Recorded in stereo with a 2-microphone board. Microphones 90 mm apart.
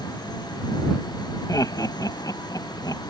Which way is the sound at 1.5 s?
40° left (ahead or behind).